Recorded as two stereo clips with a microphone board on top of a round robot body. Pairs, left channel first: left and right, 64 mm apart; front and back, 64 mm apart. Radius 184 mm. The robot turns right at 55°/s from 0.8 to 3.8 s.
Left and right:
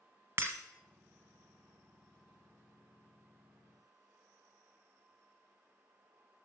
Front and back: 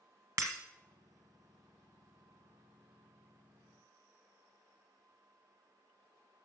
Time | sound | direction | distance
0.4 | breaking glass | 140° right | 0.9 m